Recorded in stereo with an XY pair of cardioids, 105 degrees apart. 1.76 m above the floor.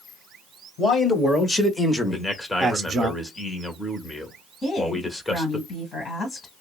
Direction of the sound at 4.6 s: 40° left.